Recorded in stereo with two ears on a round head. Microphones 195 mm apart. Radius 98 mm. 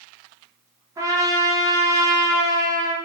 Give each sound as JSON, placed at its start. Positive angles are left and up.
{"t": 1.0, "sound": "a trumpet", "side_deg": -15, "distance_m": 0.5}